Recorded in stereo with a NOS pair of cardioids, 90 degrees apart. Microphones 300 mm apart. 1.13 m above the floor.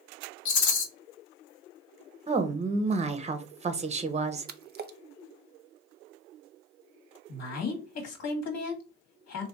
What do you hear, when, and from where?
0.5 s a rattle: 70° left, 1.1 m
2.3 s a woman speaking: 20° right, 0.7 m
4.5 s a splash: 35° right, 0.5 m
7.3 s a woman speaking: 65° left, 1.6 m